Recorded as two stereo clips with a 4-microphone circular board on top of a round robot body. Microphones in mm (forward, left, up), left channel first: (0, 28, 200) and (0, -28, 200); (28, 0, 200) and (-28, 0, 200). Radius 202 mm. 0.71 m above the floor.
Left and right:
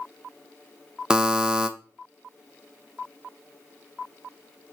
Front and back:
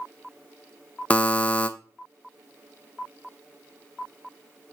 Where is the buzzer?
30° right, 1.0 m.